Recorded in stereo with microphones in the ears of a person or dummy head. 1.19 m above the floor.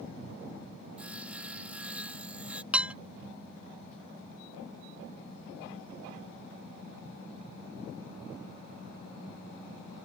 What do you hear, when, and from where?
1.0 s sawing: 5° right (ahead or behind)
2.7 s dishes clattering: 5° right (ahead or behind)